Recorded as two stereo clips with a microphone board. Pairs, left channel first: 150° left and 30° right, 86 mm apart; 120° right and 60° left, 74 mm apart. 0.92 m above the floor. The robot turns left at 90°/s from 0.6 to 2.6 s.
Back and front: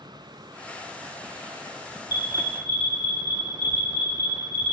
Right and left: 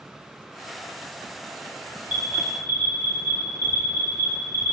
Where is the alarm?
130° left, 2 m; by 4.7 s 80° left, 2 m.